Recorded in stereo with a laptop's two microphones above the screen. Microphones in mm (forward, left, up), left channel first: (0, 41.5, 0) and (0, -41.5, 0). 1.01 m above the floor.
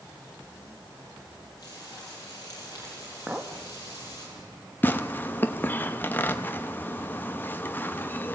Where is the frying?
45° left (ahead or behind), 8 m.